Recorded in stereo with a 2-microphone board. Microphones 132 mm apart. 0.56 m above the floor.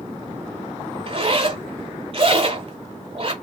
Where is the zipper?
40° right (ahead or behind), 1.0 m.